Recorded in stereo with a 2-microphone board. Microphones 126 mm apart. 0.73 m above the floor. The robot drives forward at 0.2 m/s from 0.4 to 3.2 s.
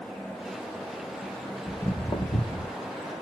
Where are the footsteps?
20° left (ahead or behind), 0.7 m; by 2.7 s 55° left (ahead or behind), 1.3 m.